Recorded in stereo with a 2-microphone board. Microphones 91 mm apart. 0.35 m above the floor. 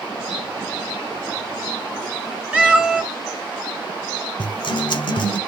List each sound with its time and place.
2.5 s a cat meowing: 10° right (ahead or behind), 0.8 m
4.4 s a guitar: 60° left (ahead or behind), 0.9 m